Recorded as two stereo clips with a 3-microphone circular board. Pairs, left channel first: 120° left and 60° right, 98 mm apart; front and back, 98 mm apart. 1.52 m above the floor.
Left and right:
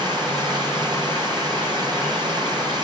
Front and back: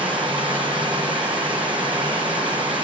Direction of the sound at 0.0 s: 105° right.